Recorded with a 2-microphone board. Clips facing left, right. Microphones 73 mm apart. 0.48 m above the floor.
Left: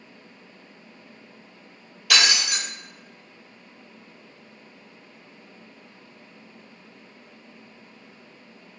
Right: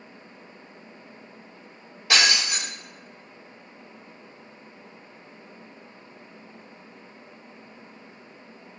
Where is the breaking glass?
30° right (ahead or behind), 1.2 m.